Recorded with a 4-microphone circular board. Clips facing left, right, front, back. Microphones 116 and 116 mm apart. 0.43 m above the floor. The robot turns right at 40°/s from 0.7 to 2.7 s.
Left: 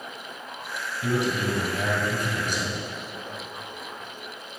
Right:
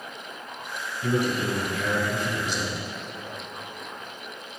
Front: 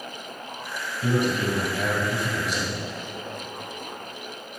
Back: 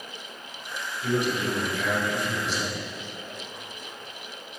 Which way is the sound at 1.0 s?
15° left.